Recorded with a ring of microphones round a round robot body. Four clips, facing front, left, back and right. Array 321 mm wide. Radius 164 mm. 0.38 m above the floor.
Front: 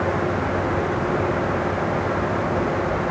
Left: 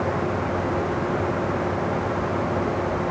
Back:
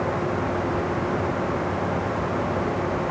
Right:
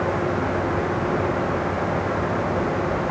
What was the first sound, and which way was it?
Only background noise.